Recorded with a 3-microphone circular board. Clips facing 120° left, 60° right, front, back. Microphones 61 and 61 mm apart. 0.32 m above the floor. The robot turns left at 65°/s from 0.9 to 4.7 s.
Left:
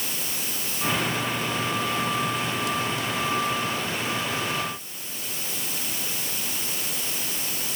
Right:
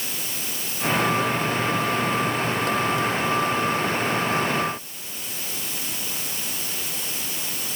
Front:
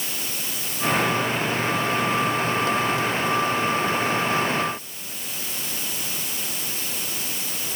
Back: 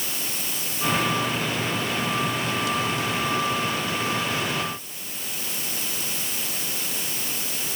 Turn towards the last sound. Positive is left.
No sound to turn to.